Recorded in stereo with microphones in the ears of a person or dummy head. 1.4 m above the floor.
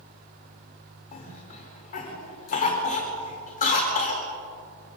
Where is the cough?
35° left (ahead or behind), 4.5 m.